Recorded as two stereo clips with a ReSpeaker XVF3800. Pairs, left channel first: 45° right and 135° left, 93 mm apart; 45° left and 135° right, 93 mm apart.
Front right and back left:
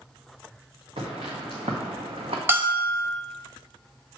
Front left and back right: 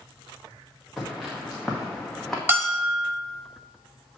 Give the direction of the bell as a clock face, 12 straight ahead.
6 o'clock.